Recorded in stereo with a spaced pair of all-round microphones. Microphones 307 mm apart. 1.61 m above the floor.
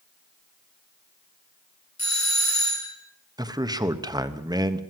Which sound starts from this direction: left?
A doorbell, at 2.0 s.